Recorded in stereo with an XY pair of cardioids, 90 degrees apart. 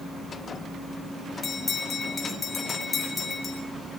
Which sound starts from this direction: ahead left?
A bell, at 1.4 s.